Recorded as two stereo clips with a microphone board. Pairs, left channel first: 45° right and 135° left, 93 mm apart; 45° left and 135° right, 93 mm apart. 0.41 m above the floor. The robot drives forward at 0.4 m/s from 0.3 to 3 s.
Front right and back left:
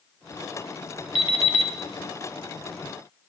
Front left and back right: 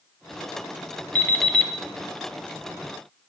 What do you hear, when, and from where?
1.1 s an alarm clock: 25° right, 0.8 m; by 1.7 s 35° right, 0.6 m